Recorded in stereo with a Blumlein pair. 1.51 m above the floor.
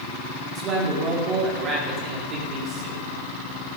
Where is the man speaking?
30° right, 4.5 m.